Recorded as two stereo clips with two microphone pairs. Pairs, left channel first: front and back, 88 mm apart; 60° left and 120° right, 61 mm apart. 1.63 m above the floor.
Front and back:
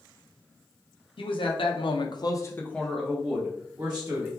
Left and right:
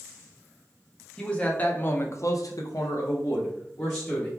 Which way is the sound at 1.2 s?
15° right.